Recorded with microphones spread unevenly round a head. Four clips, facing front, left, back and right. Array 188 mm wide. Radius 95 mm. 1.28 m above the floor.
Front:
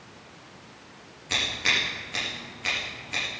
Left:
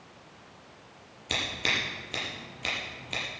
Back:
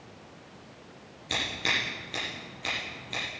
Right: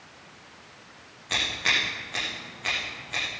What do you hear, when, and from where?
1.3 s scissors: 105° left, 7.5 m